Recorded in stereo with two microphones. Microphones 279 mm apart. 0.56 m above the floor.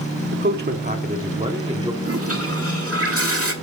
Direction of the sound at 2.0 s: 55° right (ahead or behind).